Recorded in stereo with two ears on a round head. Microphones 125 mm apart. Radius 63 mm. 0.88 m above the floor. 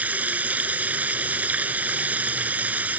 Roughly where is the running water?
Centre.